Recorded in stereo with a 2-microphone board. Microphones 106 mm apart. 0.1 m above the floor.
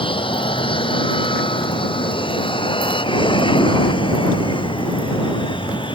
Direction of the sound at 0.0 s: 50° left (ahead or behind).